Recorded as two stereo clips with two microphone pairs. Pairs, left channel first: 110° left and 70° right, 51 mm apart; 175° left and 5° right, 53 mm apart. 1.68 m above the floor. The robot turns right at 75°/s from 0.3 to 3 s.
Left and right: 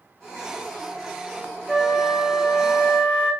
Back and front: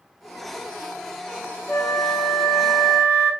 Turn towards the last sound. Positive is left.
turn(degrees=-70)